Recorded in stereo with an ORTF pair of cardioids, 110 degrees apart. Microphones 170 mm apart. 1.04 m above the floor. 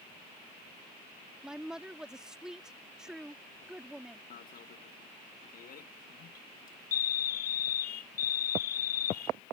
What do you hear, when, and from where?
1.4 s a woman speaking: 5° right
4.3 s an alarm: 55° left